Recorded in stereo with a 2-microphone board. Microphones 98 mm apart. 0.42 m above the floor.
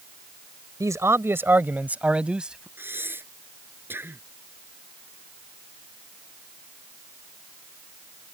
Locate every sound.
0.8 s a man speaking: 35° right (ahead or behind); by 2.7 s 5° right (ahead or behind)
2.8 s breathing: 20° right (ahead or behind)